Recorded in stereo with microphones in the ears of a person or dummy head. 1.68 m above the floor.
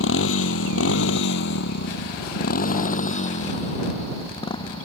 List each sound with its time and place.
0.0 s a motorcycle: 75° left (ahead or behind); by 4.9 s 30° left (ahead or behind)